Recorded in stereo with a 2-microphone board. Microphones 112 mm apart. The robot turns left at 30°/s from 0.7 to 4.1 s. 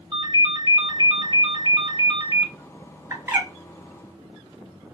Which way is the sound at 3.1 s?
25° right (ahead or behind).